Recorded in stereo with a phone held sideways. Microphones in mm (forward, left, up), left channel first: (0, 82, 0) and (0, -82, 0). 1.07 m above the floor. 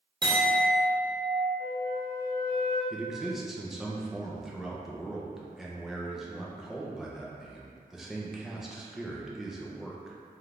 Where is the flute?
40° left (ahead or behind), 1.6 m.